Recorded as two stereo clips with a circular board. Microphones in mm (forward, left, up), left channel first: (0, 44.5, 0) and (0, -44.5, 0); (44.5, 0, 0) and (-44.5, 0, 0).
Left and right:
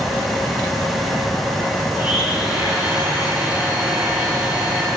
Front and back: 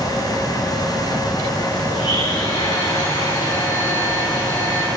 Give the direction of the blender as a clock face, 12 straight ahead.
1 o'clock.